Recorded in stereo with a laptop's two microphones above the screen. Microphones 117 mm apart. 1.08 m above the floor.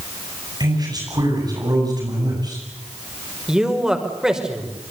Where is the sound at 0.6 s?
35° right (ahead or behind), 9 m.